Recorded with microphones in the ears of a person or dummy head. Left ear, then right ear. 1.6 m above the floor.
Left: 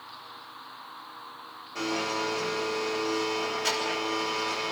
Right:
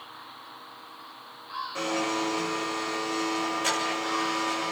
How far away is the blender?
About 7.5 m.